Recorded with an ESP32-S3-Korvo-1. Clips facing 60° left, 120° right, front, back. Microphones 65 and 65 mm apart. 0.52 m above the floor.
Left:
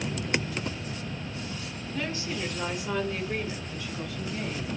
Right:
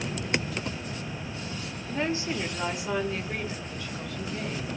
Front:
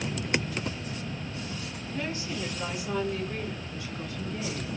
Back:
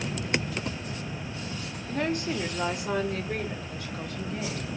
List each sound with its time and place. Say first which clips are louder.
1.9 s a woman speaking: right 4 dB, back 6 dB; 165° right, 0.9 m; by 4.7 s 140° left, 2.5 m